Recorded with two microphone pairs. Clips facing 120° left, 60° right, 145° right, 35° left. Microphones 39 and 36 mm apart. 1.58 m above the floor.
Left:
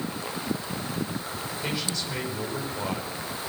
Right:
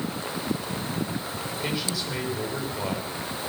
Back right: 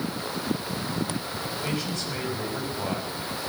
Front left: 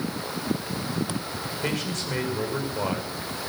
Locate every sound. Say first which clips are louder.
1.6 s a man speaking: right 1 dB, front left 3 dB; 25° left, 6 m